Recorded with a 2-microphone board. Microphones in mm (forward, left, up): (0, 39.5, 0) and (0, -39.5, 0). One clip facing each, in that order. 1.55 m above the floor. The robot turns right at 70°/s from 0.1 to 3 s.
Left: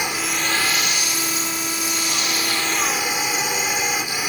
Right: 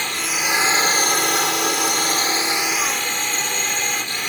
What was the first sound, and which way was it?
A drone, 165° left.